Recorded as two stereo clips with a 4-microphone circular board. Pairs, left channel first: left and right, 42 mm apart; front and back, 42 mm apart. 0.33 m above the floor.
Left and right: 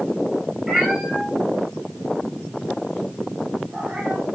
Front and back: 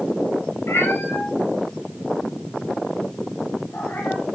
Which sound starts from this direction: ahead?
A cat meowing, at 0.7 s.